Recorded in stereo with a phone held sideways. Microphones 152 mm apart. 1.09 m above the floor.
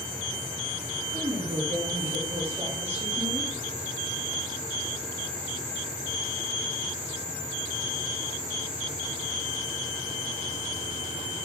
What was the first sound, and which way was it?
A woman speaking, 45° right (ahead or behind).